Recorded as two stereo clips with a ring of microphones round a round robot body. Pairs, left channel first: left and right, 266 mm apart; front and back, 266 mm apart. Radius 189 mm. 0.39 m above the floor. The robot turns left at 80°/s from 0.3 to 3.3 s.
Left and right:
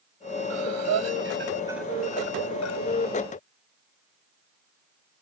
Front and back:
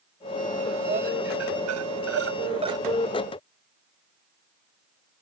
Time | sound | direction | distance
0.5 | breathing | 75° right | ?